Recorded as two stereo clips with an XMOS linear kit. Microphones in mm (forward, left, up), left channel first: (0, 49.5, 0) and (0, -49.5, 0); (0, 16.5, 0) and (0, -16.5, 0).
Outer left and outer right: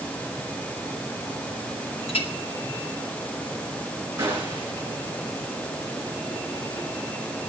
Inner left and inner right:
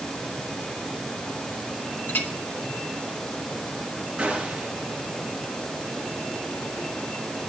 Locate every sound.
2.1 s a clink: 70° left (ahead or behind), 2 m
4.2 s a gunshot: 25° right (ahead or behind), 9.5 m